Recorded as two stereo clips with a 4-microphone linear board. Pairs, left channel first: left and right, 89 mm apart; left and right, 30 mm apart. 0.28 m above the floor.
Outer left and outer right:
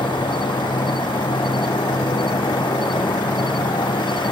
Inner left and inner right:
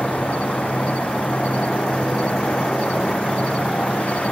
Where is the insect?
60° left (ahead or behind).